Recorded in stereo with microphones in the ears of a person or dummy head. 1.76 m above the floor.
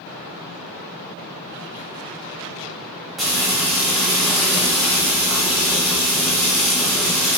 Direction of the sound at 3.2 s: Centre (ahead or behind).